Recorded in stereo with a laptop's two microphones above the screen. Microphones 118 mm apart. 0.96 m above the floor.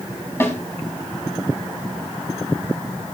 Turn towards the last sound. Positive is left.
turn(degrees=20)  # may be behind; listen again after turning